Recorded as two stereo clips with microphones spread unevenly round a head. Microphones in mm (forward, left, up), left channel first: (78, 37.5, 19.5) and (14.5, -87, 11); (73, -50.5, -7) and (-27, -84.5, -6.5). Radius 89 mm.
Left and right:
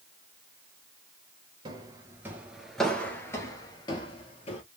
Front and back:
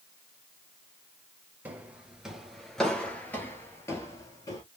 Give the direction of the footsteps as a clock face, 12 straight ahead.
4 o'clock.